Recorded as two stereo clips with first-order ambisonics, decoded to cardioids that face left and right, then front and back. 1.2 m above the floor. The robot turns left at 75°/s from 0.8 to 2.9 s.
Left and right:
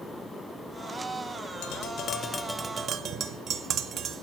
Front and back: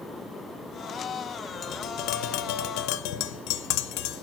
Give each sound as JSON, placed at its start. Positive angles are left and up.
{"t": 1.6, "sound": "tapping", "azimuth_deg": 65, "distance_m": 0.5}